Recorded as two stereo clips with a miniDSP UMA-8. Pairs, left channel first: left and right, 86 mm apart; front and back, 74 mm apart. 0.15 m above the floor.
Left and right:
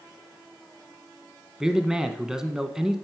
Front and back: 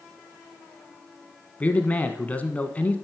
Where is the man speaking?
20° right, 1.1 m.